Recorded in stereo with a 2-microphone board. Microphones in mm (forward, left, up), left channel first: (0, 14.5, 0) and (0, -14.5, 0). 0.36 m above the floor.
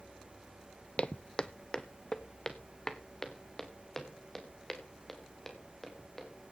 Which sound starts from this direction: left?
Footsteps, at 1.0 s.